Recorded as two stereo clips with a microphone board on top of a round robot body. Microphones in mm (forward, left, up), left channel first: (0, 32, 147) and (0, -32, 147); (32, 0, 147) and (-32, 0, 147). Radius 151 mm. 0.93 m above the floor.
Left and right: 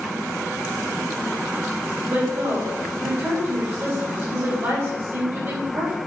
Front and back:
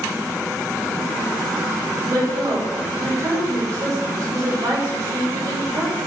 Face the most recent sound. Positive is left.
turn(degrees=-140)